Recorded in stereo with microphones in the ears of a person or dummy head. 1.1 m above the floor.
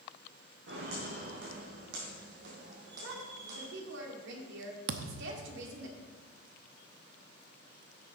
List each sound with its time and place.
0.7 s footsteps: 65° right (ahead or behind), 3.5 m; by 3.7 s 45° right (ahead or behind), 2.5 m
3.0 s a woman speaking: 70° right (ahead or behind), 2.5 m
4.9 s a thud: 60° right (ahead or behind), 0.8 m